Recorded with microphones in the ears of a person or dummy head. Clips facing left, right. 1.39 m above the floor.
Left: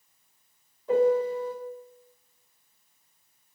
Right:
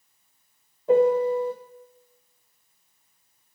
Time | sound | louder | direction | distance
0.9 | a piano | right 3 dB | 40° right (ahead or behind) | 3 m